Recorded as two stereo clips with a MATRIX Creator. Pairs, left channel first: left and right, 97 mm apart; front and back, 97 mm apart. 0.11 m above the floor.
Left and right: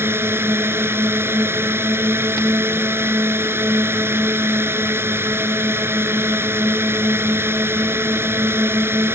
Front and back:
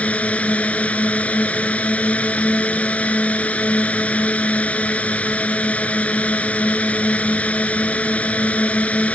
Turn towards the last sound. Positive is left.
turn(degrees=-60)